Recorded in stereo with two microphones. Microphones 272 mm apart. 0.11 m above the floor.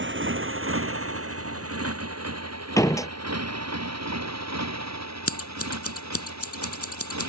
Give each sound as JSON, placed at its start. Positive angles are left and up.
{"t": 0.0, "sound": "a motorcycle", "side_deg": -45}
{"t": 2.8, "sound": "a door slam", "side_deg": 10}
{"t": 5.3, "sound": "scissors", "side_deg": 60}